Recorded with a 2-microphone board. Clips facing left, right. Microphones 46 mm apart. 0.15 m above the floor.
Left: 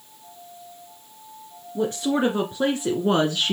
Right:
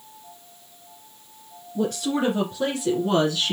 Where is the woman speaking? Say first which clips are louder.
Left 1 dB; 25° left (ahead or behind), 2 m; by 3.5 s 35° left (ahead or behind), 1.6 m.